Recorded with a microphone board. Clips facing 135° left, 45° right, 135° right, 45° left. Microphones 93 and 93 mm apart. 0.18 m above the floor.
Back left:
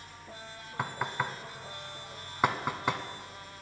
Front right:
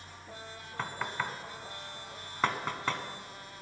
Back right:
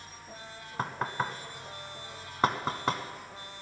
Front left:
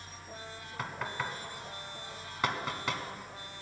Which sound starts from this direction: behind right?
Knocking, at 0.8 s.